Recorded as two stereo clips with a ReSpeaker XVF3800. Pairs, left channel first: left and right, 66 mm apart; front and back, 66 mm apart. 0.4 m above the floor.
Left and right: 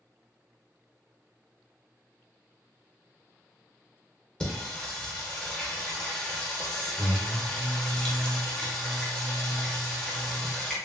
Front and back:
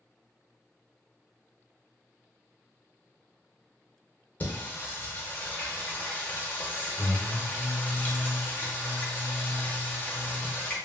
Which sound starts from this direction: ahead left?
Singing, at 4.4 s.